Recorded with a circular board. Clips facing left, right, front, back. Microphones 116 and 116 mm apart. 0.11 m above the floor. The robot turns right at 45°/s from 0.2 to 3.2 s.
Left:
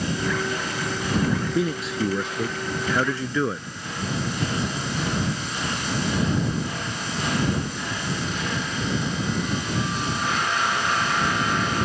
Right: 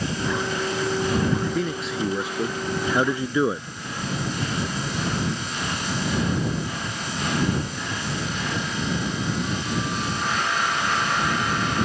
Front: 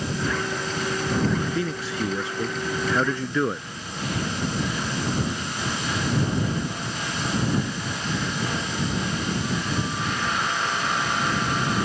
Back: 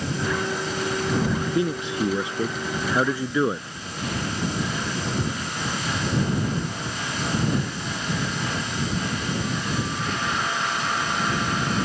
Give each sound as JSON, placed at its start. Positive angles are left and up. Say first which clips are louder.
{"t": 1.6, "sound": "a man speaking", "louder": "left 2 dB, back 3 dB", "azimuth_deg": 165}